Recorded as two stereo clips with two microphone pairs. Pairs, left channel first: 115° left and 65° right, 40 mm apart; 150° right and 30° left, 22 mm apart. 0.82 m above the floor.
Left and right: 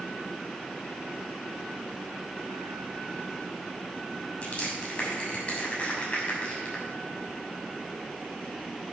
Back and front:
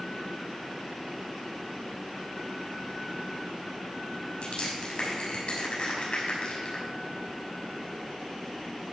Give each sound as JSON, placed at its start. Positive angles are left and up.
{"t": 4.4, "sound": "crushing", "azimuth_deg": 175, "distance_m": 6.5}